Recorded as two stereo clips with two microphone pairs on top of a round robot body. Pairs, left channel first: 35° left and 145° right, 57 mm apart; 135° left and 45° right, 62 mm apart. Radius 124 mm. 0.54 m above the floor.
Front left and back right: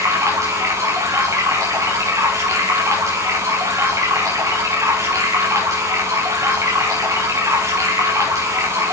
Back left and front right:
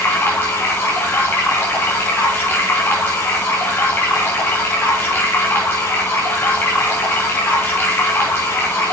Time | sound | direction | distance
0.0 | running water | 175° right | 5 m